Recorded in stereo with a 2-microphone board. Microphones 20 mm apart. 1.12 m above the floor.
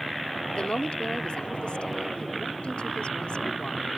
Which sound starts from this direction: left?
A woman speaking, at 0.5 s.